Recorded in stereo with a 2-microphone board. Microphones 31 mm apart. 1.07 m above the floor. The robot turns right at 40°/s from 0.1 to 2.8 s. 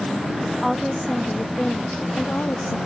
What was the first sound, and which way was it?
A woman speaking, 10° right.